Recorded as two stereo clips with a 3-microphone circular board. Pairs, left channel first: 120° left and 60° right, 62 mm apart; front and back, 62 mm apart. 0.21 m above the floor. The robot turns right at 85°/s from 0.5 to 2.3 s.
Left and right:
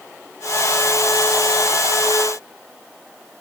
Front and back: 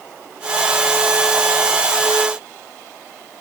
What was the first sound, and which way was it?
Only background noise.